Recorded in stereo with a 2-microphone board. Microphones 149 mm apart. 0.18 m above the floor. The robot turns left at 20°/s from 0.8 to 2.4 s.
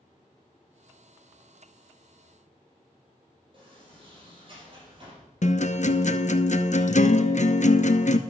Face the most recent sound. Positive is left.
turn(degrees=60)  # may be behind; listen again after turning